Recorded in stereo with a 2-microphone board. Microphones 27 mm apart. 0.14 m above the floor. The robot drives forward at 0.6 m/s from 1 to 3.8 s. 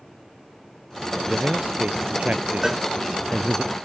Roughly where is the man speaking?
Right.